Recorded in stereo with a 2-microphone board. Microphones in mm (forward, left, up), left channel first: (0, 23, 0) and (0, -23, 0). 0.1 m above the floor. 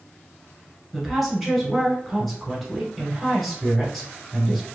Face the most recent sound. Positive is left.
turn(degrees=0)  # may be behind; listen again after turning